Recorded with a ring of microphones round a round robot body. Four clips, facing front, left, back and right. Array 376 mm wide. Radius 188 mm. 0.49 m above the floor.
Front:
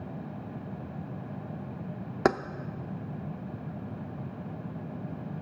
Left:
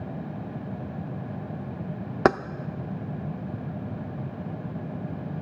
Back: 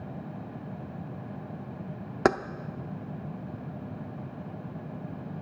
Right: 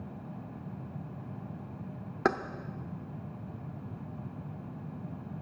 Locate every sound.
2.2 s keys jangling: 100° left, 0.5 m